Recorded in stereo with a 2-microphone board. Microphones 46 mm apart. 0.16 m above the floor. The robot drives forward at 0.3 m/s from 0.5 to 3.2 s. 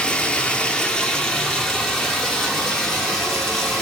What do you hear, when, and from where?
0.0 s running water: 20° left (ahead or behind), 0.7 m; by 3.8 s 10° left (ahead or behind), 1.5 m